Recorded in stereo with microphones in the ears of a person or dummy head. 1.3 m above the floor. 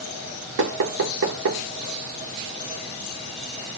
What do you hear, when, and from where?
0.6 s knocking: 70° right (ahead or behind), 1.0 m